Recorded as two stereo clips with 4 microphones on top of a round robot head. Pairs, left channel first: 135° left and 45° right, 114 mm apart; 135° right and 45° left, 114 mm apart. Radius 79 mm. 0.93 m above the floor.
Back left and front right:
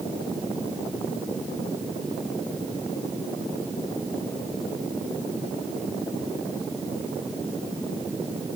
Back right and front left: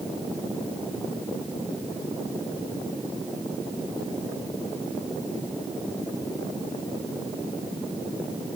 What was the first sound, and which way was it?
Only background noise.